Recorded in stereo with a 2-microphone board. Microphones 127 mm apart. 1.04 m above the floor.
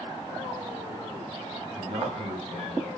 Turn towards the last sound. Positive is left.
turn(degrees=-45)  # may be behind; listen again after turning